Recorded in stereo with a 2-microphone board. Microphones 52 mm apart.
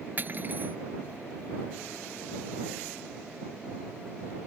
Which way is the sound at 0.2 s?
40° right (ahead or behind).